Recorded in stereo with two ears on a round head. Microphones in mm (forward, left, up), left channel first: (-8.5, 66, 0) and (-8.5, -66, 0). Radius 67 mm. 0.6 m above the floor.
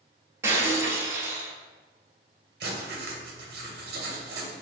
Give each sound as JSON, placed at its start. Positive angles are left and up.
{"t": 0.4, "sound": "breaking glass", "side_deg": -15, "distance_m": 0.9}
{"t": 2.6, "sound": "writing", "side_deg": -75, "distance_m": 1.0}